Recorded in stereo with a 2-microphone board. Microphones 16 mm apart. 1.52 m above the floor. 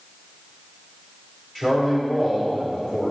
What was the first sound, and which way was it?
A man speaking, 20° left (ahead or behind).